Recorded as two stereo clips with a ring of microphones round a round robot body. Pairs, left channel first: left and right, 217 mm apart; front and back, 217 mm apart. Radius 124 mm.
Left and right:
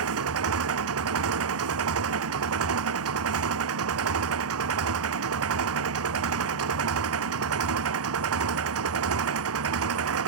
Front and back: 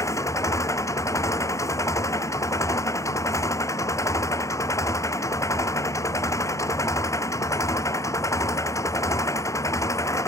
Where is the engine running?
75° right.